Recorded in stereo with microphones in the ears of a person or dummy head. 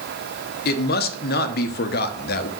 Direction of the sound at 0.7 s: 40° left (ahead or behind).